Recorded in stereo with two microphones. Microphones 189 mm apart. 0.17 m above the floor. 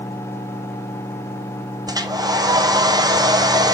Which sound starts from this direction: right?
A hair dryer, at 1.9 s.